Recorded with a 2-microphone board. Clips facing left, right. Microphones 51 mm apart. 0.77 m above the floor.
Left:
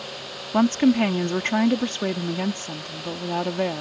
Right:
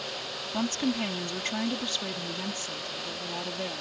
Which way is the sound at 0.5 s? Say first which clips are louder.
Left 11 dB; 45° left (ahead or behind).